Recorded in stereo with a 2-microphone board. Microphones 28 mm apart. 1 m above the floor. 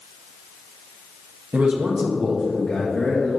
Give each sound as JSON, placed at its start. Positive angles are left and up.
{"t": 1.5, "sound": "a man speaking", "side_deg": -50, "distance_m": 1.1}